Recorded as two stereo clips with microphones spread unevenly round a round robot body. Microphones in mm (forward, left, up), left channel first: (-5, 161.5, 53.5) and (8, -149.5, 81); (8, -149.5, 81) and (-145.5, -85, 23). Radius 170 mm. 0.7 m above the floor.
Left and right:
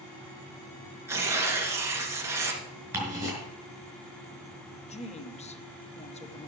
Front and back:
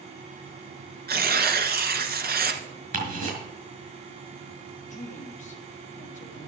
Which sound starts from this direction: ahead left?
A woman speaking, at 4.9 s.